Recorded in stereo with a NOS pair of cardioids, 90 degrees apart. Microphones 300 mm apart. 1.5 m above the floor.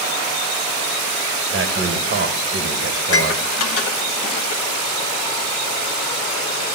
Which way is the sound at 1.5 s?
45° right.